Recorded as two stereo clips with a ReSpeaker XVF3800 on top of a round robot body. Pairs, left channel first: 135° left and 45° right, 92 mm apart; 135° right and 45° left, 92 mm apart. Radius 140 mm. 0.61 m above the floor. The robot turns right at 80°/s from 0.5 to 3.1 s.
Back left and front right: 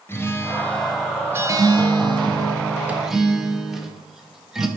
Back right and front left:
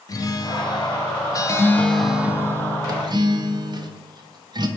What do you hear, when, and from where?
0.1 s a guitar: 170° right, 0.7 m; by 4.7 s 40° left, 0.7 m